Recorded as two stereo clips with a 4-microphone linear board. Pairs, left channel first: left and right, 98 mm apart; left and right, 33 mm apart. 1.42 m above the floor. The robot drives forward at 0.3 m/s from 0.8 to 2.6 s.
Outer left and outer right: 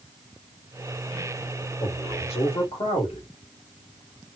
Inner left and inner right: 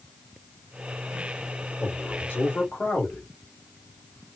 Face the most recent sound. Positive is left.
turn(degrees=80)